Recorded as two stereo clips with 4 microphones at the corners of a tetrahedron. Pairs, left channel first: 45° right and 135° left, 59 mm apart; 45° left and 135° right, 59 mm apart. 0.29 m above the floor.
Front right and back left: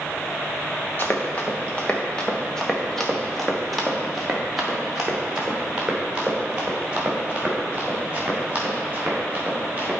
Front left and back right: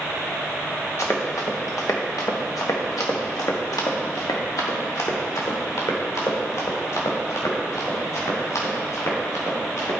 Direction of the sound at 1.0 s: 5° left.